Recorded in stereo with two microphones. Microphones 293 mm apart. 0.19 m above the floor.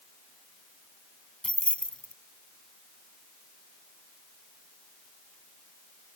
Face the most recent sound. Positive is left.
turn(degrees=5)  # may be behind; listen again after turning